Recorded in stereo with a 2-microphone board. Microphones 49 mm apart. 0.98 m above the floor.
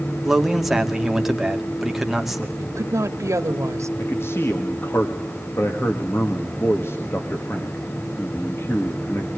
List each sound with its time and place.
0.2 s a man speaking: 5° right (ahead or behind), 2 m
2.6 s a woman speaking: 80° right, 1.8 m
4.0 s a man speaking: 55° left (ahead or behind), 1.9 m